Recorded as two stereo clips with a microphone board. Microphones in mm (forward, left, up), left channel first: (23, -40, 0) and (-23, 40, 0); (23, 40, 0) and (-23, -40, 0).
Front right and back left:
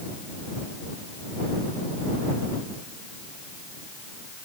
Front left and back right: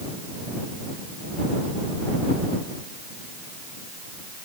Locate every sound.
Only background noise.